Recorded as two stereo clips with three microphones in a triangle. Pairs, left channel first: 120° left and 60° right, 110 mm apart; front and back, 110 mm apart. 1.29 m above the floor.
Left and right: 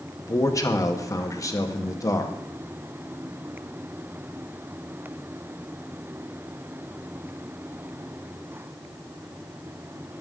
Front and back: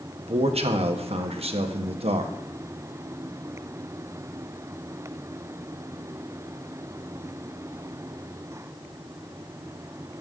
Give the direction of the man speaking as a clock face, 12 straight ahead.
6 o'clock.